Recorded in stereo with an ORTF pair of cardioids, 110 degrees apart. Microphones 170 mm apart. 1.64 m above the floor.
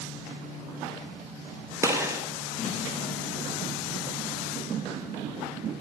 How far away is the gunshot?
About 1.4 m.